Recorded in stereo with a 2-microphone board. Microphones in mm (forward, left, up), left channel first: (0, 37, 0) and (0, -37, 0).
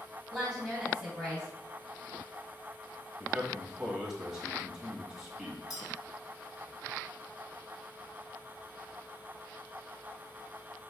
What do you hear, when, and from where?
0.3 s a woman speaking: 15° right (ahead or behind), 2.5 m
3.2 s a man speaking: 10° right (ahead or behind), 1.3 m
5.7 s a clink: 55° left (ahead or behind), 2.0 m